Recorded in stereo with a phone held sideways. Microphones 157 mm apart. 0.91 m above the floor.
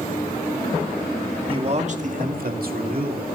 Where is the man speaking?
35° right (ahead or behind), 2 m; by 3.3 s 70° right (ahead or behind), 3 m.